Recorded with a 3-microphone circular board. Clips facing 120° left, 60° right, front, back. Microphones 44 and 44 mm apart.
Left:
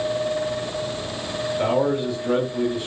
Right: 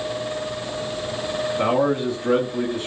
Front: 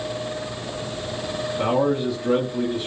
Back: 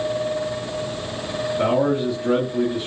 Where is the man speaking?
100° right, 2 m.